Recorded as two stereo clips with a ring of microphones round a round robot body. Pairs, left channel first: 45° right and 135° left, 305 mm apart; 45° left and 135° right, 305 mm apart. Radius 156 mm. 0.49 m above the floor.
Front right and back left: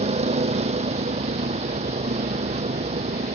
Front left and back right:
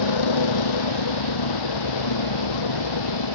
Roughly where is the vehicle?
Ahead left.